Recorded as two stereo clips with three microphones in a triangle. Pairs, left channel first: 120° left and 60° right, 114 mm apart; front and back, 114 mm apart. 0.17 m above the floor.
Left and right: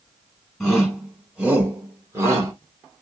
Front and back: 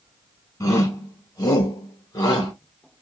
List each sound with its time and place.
0.6 s a shout: 30° left, 1.9 m; by 2.5 s 20° right, 2.0 m